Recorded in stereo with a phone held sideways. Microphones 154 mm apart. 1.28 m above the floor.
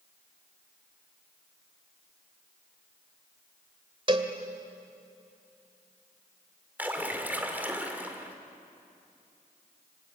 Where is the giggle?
No giggle in this recording.